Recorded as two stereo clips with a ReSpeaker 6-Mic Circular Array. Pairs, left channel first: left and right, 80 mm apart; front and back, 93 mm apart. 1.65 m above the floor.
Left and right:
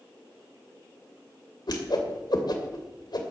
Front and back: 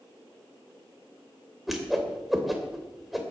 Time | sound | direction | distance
1.7 | a whoosh | 90° left | 2.5 m